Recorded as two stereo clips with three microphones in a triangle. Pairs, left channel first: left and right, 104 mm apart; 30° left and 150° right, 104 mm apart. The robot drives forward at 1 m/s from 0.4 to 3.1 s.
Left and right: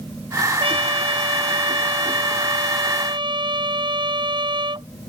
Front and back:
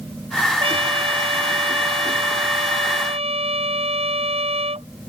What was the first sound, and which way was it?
A trumpet, 120° right.